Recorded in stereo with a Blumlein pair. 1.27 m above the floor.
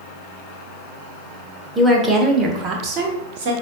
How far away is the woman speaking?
About 1.1 m.